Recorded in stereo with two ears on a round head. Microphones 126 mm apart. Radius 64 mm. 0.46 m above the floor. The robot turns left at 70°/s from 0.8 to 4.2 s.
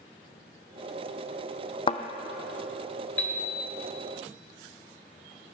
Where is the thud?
40° left (ahead or behind), 0.8 m; by 2.0 s 45° left (ahead or behind), 0.8 m.